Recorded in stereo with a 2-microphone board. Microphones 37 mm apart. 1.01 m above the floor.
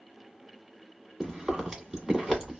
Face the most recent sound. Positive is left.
turn(degrees=-15)  # may be behind; listen again after turning